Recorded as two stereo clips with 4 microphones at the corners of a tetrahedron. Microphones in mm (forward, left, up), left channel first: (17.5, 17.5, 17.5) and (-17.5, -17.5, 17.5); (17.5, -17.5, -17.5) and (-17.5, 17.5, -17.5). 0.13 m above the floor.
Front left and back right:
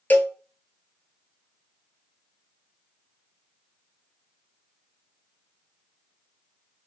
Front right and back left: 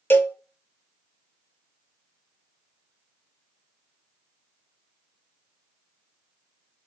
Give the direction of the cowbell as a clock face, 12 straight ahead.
12 o'clock.